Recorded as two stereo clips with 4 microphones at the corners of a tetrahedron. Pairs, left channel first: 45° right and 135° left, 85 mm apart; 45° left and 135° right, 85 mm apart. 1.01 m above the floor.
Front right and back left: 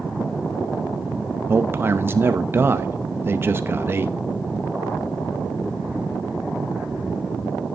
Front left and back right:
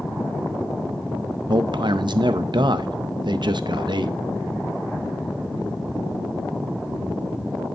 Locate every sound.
1.5 s a man speaking: 165° right, 0.6 m